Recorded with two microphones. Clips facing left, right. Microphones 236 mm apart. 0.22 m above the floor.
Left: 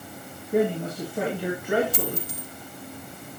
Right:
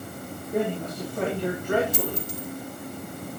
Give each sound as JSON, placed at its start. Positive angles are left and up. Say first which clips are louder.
{"t": 0.5, "sound": "a man speaking", "louder": "left 4 dB", "side_deg": 10, "distance_m": 3.5}
{"t": 1.9, "sound": "a dropped coin", "louder": "right 1 dB", "side_deg": 60, "distance_m": 1.8}